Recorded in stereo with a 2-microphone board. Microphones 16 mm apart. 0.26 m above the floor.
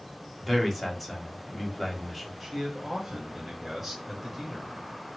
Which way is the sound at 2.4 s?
10° right (ahead or behind).